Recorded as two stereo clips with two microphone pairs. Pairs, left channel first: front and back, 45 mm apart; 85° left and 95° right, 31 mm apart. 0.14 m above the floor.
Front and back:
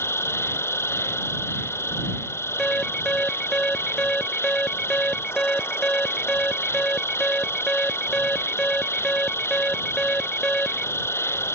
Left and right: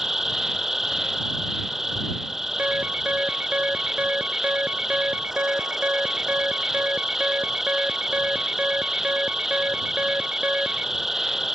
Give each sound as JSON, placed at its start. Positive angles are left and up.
{"t": 0.0, "sound": "an insect", "azimuth_deg": -15}
{"t": 2.6, "sound": "an alarm", "azimuth_deg": -70}